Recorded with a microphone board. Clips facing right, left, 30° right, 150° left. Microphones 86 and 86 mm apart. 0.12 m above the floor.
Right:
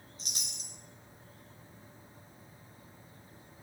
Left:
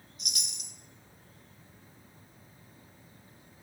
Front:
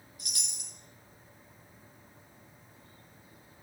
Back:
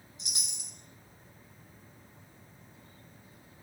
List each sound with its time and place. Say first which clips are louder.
0.2 s a chime: left 4 dB, back 1 dB; 145° right, 2.0 m